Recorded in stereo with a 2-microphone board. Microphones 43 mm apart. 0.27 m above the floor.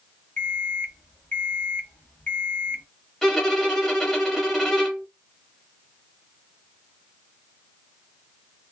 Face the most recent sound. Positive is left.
turn(degrees=10)  # may be behind; listen again after turning